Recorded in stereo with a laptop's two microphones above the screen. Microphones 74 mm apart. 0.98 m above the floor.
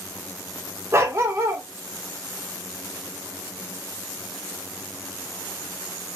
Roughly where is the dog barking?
Right.